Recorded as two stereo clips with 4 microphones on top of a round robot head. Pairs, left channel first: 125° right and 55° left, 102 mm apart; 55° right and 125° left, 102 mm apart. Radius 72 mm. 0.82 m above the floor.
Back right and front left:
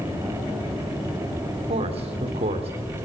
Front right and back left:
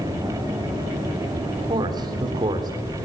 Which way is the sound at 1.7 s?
75° left.